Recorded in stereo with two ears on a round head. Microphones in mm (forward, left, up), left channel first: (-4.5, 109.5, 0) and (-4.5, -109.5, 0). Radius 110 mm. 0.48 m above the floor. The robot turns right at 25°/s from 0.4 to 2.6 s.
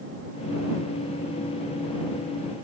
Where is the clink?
No clink in this recording.